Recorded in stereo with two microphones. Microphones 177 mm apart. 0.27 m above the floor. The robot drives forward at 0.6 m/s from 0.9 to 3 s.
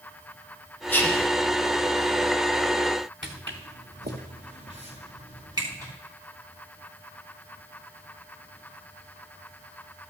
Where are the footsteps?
85° right, 1.7 m; by 5.9 s 20° right (ahead or behind), 3 m.